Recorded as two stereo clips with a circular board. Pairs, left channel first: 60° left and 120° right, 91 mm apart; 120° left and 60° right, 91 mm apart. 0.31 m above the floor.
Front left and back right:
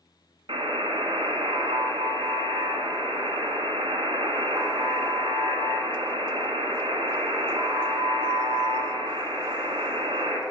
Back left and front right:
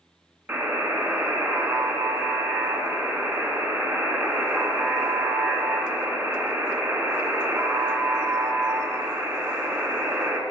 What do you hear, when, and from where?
0.5 s a buzzer: 140° right, 1.5 m